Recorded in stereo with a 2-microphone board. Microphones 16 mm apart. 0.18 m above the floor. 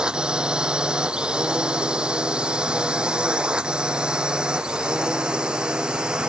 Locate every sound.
0.0 s a drone: 65° right (ahead or behind)